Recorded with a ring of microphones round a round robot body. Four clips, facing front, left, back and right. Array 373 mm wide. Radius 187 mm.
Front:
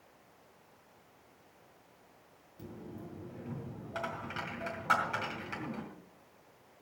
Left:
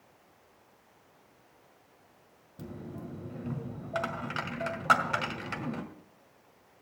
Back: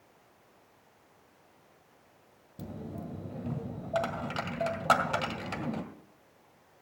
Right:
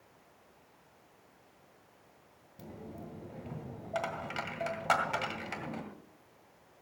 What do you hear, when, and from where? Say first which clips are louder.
2.6 s a dropped coin: left 4 dB, back 5 dB; 160° left, 1.8 m